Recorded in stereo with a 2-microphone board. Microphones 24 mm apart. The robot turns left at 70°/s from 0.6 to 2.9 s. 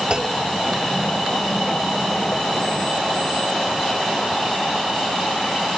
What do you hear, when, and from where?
0.1 s a clunk: 40° right (ahead or behind)